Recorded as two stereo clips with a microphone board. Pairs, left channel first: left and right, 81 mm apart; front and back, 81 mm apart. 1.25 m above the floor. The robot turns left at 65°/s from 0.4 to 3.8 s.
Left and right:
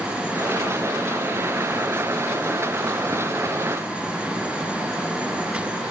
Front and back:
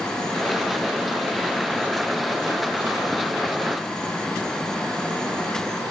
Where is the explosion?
No explosion in this recording.